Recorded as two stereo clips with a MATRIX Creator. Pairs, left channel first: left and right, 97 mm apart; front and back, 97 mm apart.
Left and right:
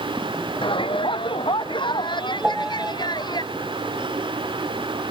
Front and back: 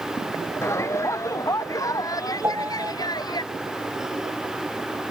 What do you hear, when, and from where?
0.6 s a shout: 65° left; by 3.4 s 45° left
2.4 s a piano: 165° right